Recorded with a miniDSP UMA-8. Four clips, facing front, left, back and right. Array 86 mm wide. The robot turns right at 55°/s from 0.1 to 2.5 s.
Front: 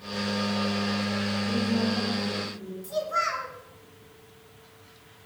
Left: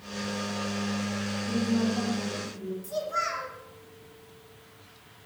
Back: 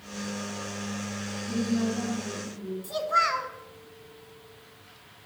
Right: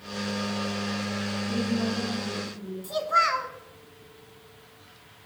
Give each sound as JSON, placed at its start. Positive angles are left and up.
{"t": 1.5, "sound": "a woman speaking", "azimuth_deg": 30, "distance_m": 7.0}
{"t": 2.8, "sound": "a child speaking", "azimuth_deg": -115, "distance_m": 1.6}